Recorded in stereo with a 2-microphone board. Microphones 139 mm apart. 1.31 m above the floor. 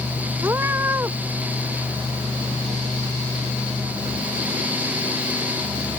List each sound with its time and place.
0.4 s a cat meowing: 15° right (ahead or behind)